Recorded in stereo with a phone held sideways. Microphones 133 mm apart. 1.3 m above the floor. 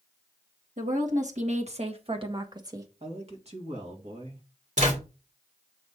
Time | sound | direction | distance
0.8 | a woman speaking | 85° right | 1.5 m
3.0 | a man speaking | 55° right (ahead or behind) | 2 m
4.8 | a zipper | 75° right (ahead or behind) | 2.5 m